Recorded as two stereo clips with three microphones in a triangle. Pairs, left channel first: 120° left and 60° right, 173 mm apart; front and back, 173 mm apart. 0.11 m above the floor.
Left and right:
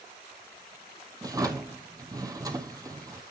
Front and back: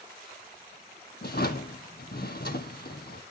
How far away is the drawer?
About 0.8 m.